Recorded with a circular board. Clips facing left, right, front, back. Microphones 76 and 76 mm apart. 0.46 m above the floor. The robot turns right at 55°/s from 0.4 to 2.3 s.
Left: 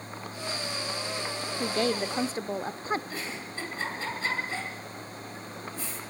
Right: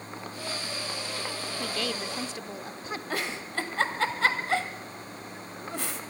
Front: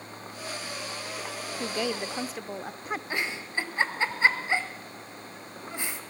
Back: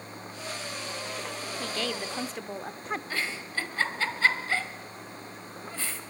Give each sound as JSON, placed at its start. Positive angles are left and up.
{"t": 1.6, "sound": "a woman speaking", "azimuth_deg": 50, "distance_m": 0.8}
{"t": 3.1, "sound": "a giggle", "azimuth_deg": -75, "distance_m": 1.9}